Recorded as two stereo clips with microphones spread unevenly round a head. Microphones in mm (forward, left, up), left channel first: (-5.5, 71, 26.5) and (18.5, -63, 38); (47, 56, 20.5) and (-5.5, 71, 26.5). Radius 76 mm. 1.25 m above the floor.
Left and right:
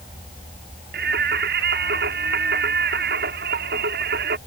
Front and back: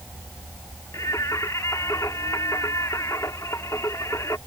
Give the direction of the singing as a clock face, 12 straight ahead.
3 o'clock.